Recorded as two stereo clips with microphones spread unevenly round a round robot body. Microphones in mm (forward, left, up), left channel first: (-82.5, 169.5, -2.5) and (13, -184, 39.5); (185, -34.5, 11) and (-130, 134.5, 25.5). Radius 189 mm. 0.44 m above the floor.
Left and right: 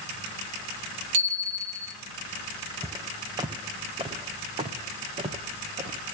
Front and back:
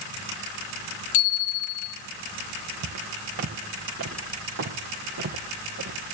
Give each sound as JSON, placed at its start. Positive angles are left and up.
{"t": 1.1, "sound": "a bicycle bell", "azimuth_deg": -85, "distance_m": 9.5}
{"t": 2.8, "sound": "footsteps", "azimuth_deg": -155, "distance_m": 1.6}